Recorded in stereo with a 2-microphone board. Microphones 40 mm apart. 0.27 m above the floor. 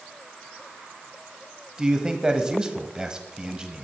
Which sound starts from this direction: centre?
A man speaking, at 1.8 s.